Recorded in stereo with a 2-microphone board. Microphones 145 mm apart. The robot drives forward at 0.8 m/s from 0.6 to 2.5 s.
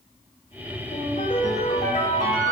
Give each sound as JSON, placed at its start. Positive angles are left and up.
{"t": 0.9, "sound": "a ringtone", "side_deg": 70, "distance_m": 4.5}